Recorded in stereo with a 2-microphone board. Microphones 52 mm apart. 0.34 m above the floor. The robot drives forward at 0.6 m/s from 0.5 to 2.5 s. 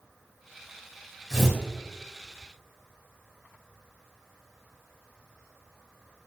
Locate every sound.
1.3 s tearing paper: 5° left (ahead or behind), 1.5 m